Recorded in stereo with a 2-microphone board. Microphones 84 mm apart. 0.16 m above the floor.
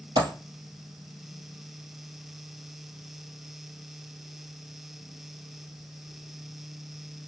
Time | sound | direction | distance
0.2 | a dropped coin | 65° right (ahead or behind) | 1.8 m